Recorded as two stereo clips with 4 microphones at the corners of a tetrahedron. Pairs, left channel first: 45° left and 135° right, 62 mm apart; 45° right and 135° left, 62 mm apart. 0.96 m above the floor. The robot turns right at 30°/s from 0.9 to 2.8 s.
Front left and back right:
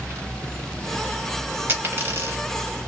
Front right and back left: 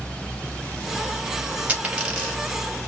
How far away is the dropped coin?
About 1.2 m.